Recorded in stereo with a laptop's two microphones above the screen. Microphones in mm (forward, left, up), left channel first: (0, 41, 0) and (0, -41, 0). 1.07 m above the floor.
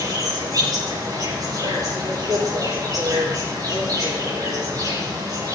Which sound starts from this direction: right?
An insect, at 0.0 s.